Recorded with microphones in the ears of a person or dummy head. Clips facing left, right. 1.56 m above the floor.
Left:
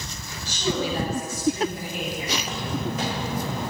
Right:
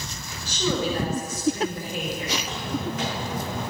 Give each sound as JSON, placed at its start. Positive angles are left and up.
{"t": 0.5, "sound": "a woman speaking", "side_deg": -70, "distance_m": 5.5}
{"t": 2.4, "sound": "footsteps", "side_deg": 30, "distance_m": 4.0}